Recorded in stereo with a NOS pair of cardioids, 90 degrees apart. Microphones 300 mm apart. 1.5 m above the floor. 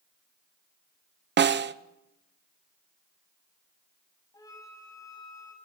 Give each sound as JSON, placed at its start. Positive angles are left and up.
{"t": 1.4, "sound": "a snare drum", "azimuth_deg": -35, "distance_m": 0.8}
{"t": 4.3, "sound": "a flute", "azimuth_deg": 10, "distance_m": 6.5}